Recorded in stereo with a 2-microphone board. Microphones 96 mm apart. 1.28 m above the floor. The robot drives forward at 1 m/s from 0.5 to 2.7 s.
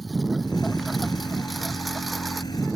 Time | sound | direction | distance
0.0 | a lawn mower | centre (ahead or behind) | ?